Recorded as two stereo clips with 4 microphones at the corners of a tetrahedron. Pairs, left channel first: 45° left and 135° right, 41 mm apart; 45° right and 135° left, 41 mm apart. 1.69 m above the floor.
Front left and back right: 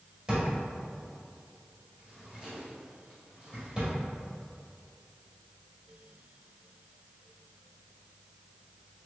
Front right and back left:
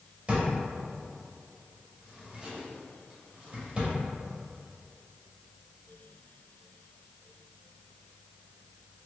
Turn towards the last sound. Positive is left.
turn(degrees=180)